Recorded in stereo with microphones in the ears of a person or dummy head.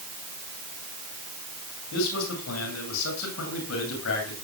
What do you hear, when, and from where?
1.9 s a man speaking: 75° left (ahead or behind), 8 m